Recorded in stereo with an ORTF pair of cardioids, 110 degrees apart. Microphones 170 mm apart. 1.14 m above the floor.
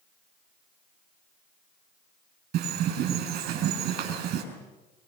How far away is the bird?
About 7 m.